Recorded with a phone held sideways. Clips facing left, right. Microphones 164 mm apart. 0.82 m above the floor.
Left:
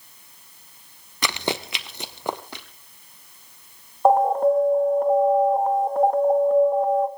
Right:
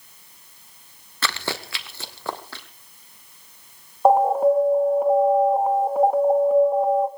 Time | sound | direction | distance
1.2 | running footsteps | 15° left (ahead or behind) | 0.8 m
4.0 | an alarm | 5° right (ahead or behind) | 1.7 m